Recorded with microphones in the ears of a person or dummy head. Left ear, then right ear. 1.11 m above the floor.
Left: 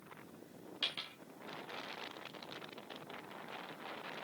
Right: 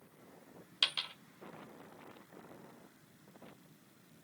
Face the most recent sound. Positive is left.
turn(degrees=-45)  # may be behind; listen again after turning